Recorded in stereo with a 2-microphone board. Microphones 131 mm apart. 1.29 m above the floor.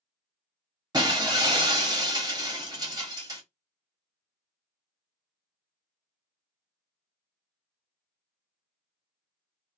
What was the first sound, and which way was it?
Breaking glass, 30° right (ahead or behind).